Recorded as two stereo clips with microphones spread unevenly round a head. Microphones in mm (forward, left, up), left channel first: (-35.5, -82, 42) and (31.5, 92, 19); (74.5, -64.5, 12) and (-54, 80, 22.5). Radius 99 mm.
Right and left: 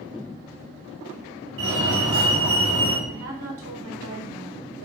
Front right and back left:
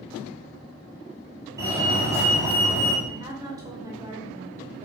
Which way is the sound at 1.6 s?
55° left.